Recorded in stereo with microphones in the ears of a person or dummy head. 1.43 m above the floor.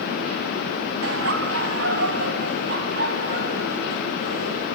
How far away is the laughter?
About 2 m.